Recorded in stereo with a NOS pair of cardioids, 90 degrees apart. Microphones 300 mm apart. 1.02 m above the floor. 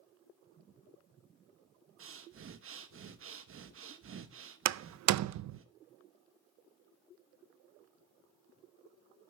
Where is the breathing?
45° right, 1.2 m.